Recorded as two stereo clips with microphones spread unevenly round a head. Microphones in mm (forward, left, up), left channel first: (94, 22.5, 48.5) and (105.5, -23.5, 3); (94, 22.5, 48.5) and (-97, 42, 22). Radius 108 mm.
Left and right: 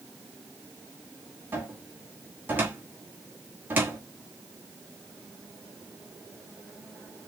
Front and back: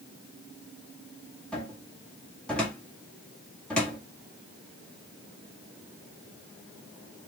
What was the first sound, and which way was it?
A cupboard door, 95° right.